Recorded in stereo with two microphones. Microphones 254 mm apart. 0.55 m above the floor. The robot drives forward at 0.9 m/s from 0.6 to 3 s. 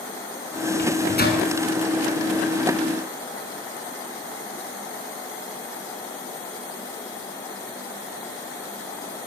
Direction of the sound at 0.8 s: 40° left (ahead or behind).